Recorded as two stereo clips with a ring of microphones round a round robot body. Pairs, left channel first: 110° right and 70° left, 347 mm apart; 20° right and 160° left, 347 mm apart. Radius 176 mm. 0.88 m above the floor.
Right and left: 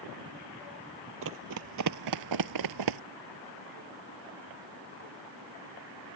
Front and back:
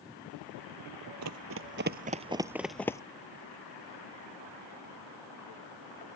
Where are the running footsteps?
120° left; by 3.0 s 55° left.